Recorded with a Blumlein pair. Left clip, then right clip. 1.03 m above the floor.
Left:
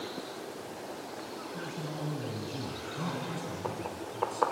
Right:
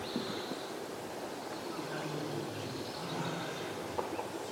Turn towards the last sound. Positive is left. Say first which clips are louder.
# left 1 dB
turn(degrees=60)